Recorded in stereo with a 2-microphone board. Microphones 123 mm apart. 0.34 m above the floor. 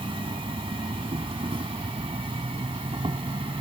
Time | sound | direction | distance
0.0 | an insect | 45° right (ahead or behind) | ?